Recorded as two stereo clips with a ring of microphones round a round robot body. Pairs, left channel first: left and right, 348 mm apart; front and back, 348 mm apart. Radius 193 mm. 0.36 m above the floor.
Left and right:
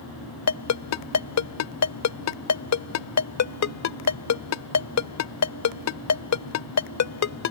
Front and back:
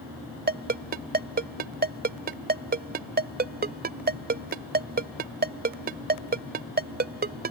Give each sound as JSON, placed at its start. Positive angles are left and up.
{"t": 0.5, "sound": "a ringtone", "azimuth_deg": 120}